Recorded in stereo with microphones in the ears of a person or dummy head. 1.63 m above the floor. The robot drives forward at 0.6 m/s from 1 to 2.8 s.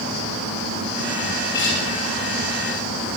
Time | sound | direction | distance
1.5 | a guitar | 20° left (ahead or behind) | 9.5 m